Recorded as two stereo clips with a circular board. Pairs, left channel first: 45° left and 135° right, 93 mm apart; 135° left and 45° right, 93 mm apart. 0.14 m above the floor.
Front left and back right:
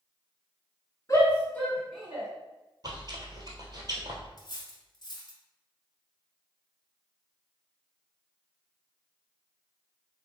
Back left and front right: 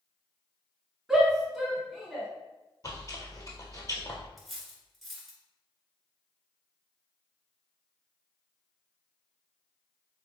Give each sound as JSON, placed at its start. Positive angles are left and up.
{"t": 1.1, "sound": "a shout", "azimuth_deg": 40, "distance_m": 1.9}
{"t": 2.8, "sound": "chewing", "azimuth_deg": -175, "distance_m": 1.2}
{"t": 4.4, "sound": "cutlery clinking", "azimuth_deg": 45, "distance_m": 1.2}